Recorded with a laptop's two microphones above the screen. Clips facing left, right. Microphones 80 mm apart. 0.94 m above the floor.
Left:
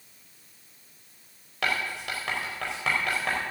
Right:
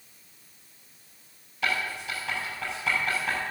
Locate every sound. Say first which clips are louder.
1.6 s writing: even; 70° left (ahead or behind), 4.5 m